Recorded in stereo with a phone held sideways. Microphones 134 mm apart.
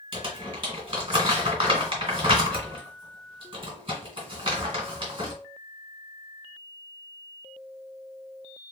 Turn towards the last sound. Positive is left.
turn(degrees=-40)  # may be behind; listen again after turning